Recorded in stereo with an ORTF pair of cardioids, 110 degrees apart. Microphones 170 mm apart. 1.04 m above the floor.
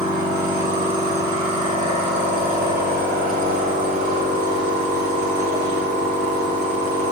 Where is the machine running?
65° right, 3.5 m.